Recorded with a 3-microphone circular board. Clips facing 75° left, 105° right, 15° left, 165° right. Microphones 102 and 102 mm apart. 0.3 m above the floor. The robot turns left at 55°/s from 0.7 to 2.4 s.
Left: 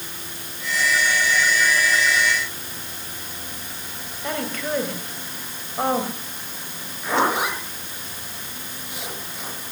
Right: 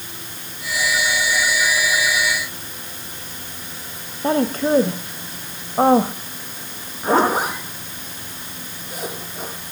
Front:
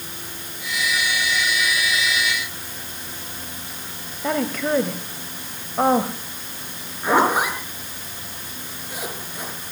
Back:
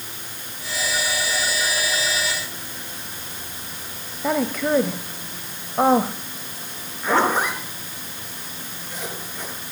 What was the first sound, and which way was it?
A woman speaking, 85° right.